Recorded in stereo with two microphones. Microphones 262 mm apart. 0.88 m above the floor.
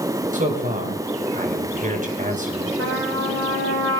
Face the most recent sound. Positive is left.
turn(degrees=-80)